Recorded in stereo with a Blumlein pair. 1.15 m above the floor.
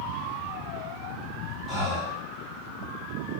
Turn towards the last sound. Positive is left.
turn(degrees=5)